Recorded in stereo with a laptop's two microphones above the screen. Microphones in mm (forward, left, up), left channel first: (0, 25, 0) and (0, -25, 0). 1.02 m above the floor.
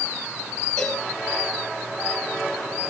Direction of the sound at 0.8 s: 15° left (ahead or behind).